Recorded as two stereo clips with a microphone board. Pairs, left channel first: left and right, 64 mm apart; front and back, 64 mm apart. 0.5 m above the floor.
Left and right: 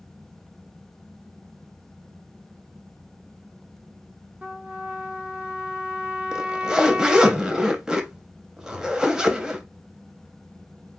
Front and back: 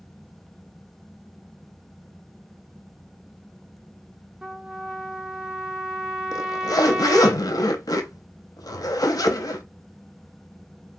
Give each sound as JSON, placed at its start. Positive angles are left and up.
{"t": 4.4, "sound": "a trumpet", "azimuth_deg": -125, "distance_m": 0.5}
{"t": 6.3, "sound": "a zipper", "azimuth_deg": -15, "distance_m": 0.6}